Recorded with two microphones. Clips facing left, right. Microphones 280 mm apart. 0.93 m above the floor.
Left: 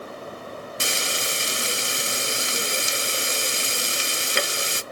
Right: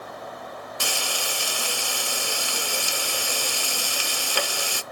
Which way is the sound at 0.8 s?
25° left (ahead or behind).